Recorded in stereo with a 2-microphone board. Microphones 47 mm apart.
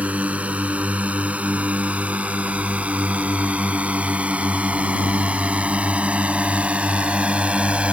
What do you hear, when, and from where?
0.0 s a drone: 30° right (ahead or behind); by 7.9 s 25° right (ahead or behind)